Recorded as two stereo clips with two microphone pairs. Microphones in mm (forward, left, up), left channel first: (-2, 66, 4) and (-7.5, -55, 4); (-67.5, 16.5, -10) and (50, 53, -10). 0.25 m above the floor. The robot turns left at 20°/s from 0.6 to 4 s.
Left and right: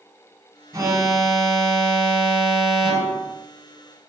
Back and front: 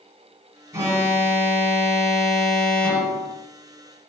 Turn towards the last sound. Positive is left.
turn(degrees=-105)